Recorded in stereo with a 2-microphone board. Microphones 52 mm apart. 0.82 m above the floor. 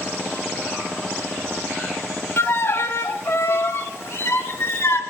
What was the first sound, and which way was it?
A violin, 55° left (ahead or behind).